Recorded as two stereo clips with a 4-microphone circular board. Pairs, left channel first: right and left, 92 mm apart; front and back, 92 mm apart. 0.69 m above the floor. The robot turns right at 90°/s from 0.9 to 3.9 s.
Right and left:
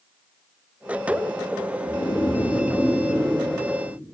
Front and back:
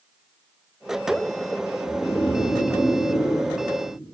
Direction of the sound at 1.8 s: 80° right.